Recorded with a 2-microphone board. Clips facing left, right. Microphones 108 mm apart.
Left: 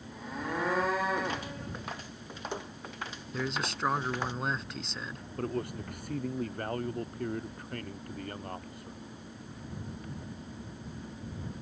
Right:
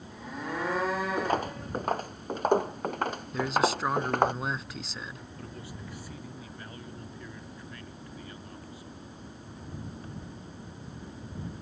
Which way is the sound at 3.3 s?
Centre (ahead or behind).